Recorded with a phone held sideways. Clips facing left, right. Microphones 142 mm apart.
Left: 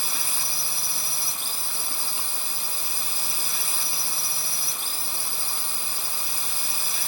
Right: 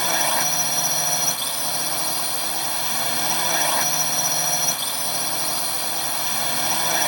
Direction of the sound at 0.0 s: 75° right (ahead or behind).